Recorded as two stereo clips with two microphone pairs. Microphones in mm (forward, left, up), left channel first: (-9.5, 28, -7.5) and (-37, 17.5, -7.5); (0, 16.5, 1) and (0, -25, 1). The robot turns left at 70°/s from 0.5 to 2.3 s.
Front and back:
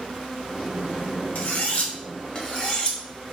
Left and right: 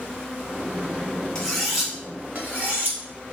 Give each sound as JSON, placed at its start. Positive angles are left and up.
{"t": 1.4, "sound": "cutlery clinking", "azimuth_deg": 25, "distance_m": 0.8}